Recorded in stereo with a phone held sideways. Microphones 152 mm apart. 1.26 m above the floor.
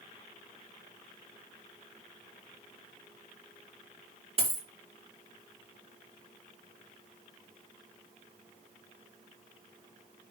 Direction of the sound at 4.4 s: 40° right (ahead or behind).